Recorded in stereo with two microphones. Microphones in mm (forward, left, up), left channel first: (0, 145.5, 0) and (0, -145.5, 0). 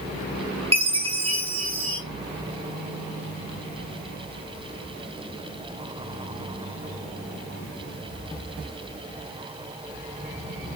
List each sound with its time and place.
0.7 s a chime: 20° right (ahead or behind), 1.2 m